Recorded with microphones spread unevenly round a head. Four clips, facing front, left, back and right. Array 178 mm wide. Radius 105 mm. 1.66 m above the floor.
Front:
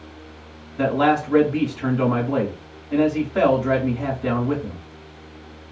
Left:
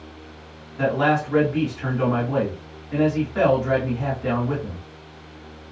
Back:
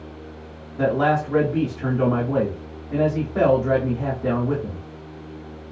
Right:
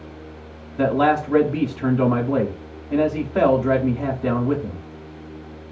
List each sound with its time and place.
0.8 s a man speaking: 110° right, 1.8 m